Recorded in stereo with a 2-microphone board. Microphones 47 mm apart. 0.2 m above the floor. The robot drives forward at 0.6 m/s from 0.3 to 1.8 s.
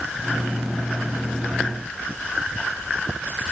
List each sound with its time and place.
Only background noise.